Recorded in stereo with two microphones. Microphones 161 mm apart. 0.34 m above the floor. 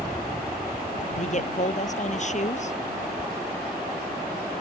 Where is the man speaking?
45° left (ahead or behind).